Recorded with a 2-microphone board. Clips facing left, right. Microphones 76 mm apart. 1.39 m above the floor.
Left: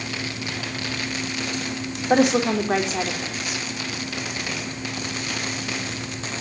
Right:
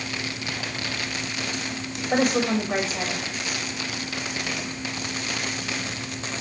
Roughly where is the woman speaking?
Left.